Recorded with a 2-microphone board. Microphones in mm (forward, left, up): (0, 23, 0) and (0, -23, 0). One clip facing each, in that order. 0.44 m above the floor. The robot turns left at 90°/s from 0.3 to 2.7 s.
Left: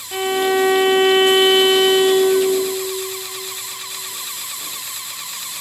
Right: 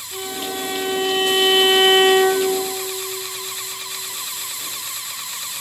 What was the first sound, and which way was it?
A violin, 110° left.